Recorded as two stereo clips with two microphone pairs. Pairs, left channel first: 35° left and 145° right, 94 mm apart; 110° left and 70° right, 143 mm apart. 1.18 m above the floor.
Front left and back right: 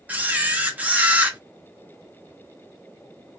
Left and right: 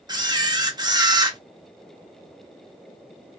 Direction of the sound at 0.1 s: 85° right.